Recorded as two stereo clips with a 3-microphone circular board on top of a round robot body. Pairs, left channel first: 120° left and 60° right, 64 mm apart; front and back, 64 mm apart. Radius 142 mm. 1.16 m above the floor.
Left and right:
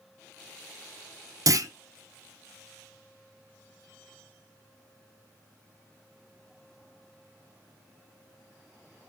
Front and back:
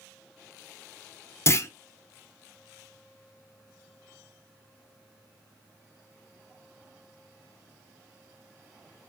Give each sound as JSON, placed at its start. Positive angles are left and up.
{"t": 1.5, "sound": "a clunk", "azimuth_deg": -45, "distance_m": 0.5}